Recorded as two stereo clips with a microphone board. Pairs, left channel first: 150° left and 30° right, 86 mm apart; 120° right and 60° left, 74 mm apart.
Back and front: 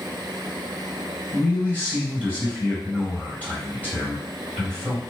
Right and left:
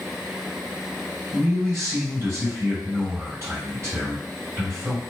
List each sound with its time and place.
1.3 s a man speaking: 90° left, 2.0 m